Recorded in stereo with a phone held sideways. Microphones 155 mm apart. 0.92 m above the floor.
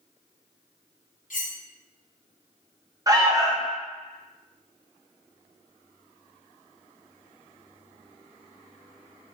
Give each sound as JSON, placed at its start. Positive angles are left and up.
{"t": 1.3, "sound": "cutlery clinking", "side_deg": 65, "distance_m": 0.7}
{"t": 3.1, "sound": "an alarm", "side_deg": -25, "distance_m": 0.6}